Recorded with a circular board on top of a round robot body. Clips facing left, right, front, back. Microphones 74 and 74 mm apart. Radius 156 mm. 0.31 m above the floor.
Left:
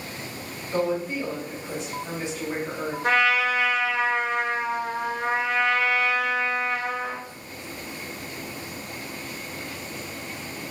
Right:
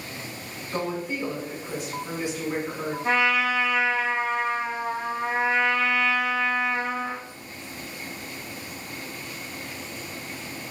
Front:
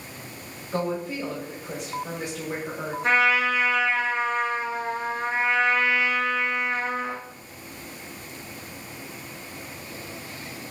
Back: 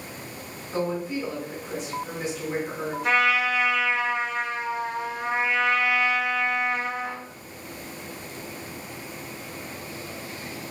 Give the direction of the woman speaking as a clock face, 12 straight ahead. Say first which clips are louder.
Left 4 dB, even; 11 o'clock.